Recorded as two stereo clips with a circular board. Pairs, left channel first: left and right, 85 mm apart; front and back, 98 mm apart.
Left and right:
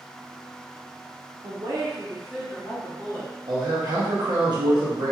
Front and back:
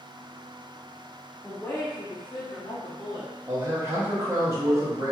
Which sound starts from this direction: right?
A woman speaking, at 1.4 s.